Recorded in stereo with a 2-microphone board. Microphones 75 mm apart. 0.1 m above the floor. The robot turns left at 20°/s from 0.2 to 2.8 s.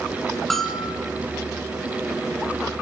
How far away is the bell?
About 1.0 m.